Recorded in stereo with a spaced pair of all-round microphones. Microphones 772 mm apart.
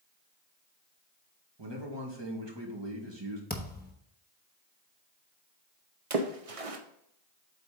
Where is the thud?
10° left (ahead or behind), 1.0 m.